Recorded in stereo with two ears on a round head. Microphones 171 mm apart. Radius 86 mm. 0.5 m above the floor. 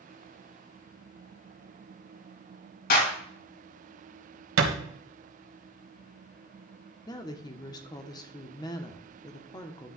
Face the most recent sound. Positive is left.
turn(degrees=20)  # may be behind; listen again after turning